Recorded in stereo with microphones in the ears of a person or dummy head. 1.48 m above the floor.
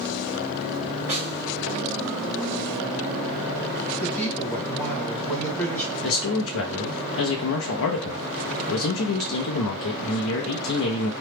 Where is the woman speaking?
5° left (ahead or behind), 1.2 m.